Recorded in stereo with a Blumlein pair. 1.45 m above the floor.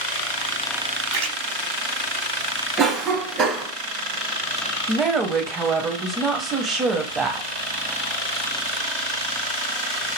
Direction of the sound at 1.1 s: 40° right.